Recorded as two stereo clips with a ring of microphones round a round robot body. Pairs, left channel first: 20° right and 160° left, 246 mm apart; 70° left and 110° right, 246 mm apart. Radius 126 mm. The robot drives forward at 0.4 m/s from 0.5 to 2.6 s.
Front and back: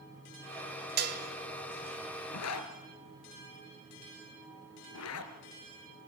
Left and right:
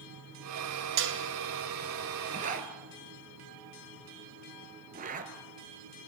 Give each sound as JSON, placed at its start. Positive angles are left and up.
{"t": 1.0, "sound": "dishes clattering", "azimuth_deg": -150, "distance_m": 2.0}
{"t": 2.3, "sound": "a zipper", "azimuth_deg": -50, "distance_m": 1.9}